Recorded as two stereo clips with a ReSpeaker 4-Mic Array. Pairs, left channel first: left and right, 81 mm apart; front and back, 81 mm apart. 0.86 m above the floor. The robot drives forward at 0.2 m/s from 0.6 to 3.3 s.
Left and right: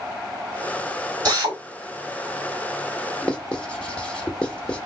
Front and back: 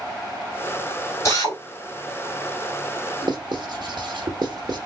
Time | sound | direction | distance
1.2 | a drill | 50° right | 2 m
3.2 | writing | 165° left | 0.9 m